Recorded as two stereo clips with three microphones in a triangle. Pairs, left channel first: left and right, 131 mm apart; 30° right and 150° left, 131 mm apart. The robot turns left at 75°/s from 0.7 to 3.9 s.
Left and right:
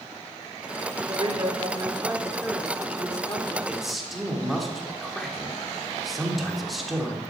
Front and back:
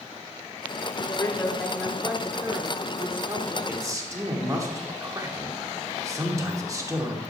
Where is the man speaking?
160° right, 1.2 m; by 7.2 s straight behind, 1.2 m.